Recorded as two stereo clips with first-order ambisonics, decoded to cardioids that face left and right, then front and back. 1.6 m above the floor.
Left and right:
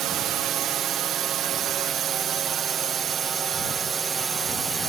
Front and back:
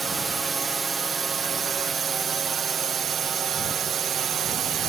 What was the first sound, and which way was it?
A drone, 110° right.